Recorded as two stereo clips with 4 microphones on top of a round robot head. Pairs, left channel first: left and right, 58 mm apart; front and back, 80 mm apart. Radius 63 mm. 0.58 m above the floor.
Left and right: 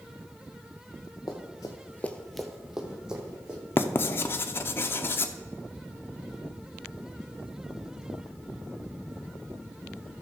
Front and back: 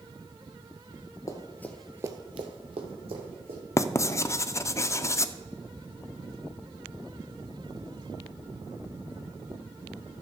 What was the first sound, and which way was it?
Running footsteps, 45° left.